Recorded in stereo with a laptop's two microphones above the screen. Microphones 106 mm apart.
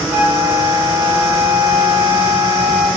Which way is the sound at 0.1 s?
60° right (ahead or behind).